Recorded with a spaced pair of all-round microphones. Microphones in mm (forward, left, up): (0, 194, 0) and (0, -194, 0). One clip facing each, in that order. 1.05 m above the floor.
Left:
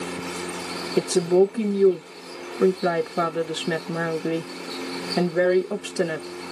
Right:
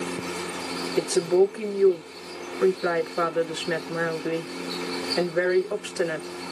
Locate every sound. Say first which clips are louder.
1.0 s a woman speaking: left 2 dB; 50° left (ahead or behind), 0.5 m